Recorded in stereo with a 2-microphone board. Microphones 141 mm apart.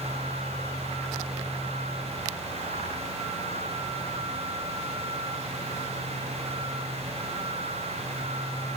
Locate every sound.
Only background noise.